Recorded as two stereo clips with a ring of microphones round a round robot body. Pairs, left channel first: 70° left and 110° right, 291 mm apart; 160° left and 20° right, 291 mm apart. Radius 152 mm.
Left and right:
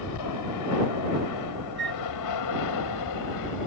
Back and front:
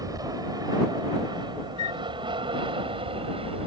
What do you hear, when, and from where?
0.0 s an aircraft: 55° left; by 3.7 s 50° left
1.8 s a flute: 165° right